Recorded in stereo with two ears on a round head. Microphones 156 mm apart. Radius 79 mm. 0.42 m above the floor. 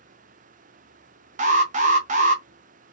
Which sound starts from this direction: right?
An alarm, at 1.4 s.